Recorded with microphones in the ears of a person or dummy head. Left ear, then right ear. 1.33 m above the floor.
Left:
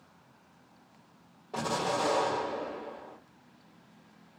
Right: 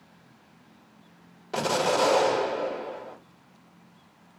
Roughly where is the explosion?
Right.